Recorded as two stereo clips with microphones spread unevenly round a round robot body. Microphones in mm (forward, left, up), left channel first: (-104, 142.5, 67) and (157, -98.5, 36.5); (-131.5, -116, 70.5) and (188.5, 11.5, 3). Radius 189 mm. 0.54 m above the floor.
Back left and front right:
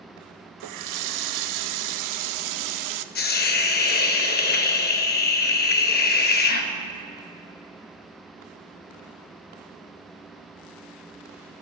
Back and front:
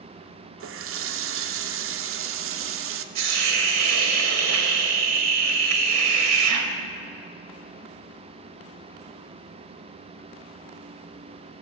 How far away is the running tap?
About 0.5 m.